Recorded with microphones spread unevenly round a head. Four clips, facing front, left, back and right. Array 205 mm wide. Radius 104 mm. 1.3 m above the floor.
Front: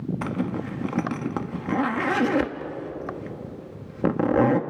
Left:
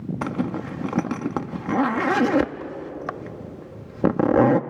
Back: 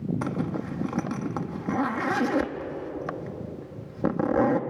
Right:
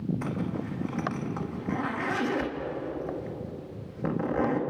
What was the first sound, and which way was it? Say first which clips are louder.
A zipper: left 6 dB, front 2 dB; 70° left.